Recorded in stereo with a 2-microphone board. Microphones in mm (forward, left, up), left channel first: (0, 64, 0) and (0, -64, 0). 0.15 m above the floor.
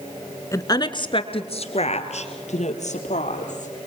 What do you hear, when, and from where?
0.5 s a woman speaking: 25° left (ahead or behind), 1.3 m; by 3.7 s 75° left (ahead or behind), 4 m